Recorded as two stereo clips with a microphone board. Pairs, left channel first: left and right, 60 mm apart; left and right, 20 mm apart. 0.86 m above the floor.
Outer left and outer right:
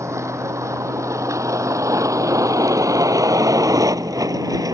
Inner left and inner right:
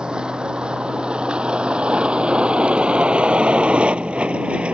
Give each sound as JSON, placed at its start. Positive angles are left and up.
{"t": 0.0, "sound": "a vehicle", "side_deg": -55}